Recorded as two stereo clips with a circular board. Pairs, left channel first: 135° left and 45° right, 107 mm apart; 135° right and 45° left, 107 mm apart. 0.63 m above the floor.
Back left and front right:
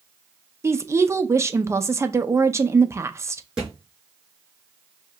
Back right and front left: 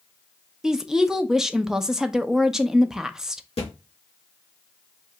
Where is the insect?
No insect in this recording.